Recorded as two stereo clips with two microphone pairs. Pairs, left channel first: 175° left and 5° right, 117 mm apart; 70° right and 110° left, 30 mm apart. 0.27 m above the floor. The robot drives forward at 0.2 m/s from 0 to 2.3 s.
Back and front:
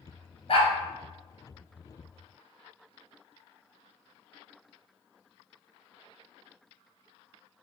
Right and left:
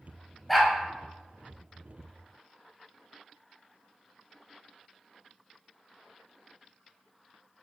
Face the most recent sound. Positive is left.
turn(degrees=-160)